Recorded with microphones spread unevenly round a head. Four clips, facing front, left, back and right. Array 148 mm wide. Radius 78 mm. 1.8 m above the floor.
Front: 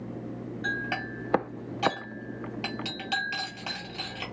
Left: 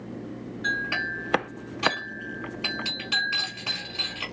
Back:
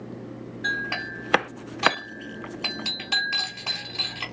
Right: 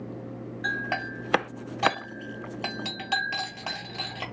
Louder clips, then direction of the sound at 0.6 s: Left 1 dB, back 3 dB; 70° right.